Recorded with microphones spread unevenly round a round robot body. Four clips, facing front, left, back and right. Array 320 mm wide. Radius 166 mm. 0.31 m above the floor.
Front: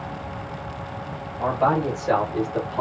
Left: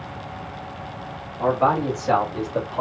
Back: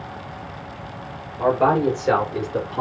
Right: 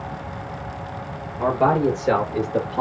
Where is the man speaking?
130° right, 7 m; by 2.8 s 125° right, 7 m.